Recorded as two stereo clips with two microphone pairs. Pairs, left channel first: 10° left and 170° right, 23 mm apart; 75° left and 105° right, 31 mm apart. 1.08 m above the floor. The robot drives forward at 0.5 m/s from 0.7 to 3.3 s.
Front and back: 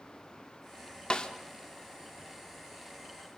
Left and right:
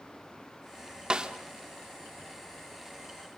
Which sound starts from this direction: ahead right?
A snare drum, at 1.1 s.